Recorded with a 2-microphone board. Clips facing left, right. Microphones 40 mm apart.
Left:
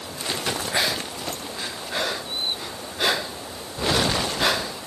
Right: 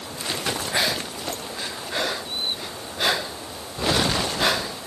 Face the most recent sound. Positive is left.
No sound to turn to.